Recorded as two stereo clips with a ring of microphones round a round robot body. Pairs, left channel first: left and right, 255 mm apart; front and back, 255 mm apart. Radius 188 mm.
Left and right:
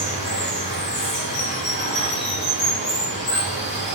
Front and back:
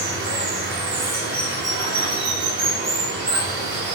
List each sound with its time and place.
0.0 s running water: 140° left, 1.9 m